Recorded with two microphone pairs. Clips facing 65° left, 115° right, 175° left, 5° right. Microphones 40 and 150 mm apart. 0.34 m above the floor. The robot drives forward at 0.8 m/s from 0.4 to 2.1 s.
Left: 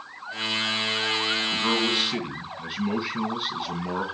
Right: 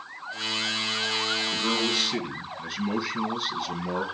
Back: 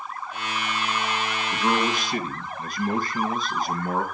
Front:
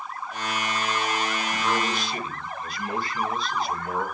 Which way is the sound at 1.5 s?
125° left.